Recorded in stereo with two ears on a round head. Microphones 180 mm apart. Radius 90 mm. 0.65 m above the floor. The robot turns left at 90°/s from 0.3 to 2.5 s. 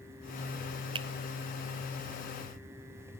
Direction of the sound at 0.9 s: 25° right (ahead or behind).